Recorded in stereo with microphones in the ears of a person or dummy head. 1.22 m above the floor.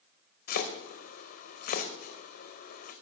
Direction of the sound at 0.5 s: 50° left (ahead or behind).